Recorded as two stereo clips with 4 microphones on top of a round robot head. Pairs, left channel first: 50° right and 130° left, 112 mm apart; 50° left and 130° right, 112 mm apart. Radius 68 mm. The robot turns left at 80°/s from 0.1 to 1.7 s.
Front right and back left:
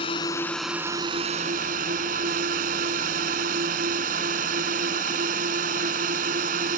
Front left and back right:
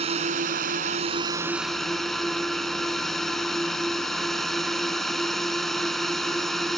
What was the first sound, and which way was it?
A drone, 95° right.